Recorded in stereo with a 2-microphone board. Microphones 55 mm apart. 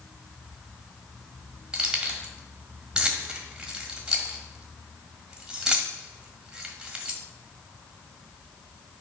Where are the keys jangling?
15° right (ahead or behind), 1.5 m.